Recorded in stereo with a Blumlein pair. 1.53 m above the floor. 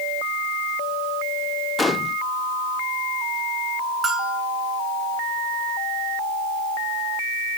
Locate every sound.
1.8 s a gunshot: 10° left, 0.8 m
4.0 s a bell: 15° right, 2.5 m